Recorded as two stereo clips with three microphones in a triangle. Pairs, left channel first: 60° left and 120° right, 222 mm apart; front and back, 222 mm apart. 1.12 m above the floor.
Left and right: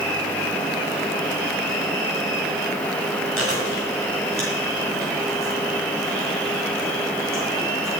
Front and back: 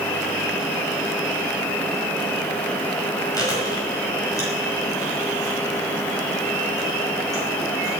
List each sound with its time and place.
3.4 s chewing: 75° left, 5.5 m